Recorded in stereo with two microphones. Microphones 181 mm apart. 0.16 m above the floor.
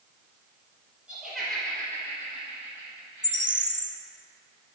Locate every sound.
1.1 s laughter: 5° right (ahead or behind), 3 m; by 3.7 s 60° left (ahead or behind), 2 m
3.2 s a bird: 45° right (ahead or behind), 0.6 m